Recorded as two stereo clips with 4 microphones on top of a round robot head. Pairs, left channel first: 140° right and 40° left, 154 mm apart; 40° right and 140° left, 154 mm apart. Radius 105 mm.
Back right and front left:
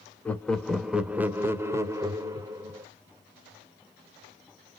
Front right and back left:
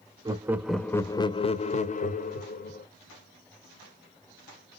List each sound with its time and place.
0.2 s laughter: 150° left, 0.8 m; by 2.9 s 30° right, 1.7 m